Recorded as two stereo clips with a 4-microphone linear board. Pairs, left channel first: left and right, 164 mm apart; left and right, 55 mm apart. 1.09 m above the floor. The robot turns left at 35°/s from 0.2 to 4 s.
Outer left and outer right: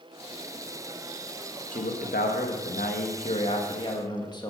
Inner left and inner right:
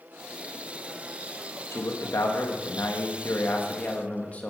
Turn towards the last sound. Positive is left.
turn(degrees=30)